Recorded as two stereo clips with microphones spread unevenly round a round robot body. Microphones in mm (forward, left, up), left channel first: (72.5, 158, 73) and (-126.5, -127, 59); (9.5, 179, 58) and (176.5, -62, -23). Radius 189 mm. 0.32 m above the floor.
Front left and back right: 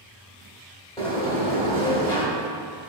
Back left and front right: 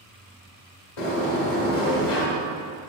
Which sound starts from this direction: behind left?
A sliding door, at 1.0 s.